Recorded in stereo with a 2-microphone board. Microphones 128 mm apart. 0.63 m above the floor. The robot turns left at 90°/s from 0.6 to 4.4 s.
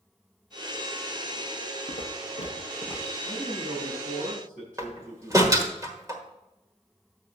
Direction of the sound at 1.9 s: 70° left (ahead or behind).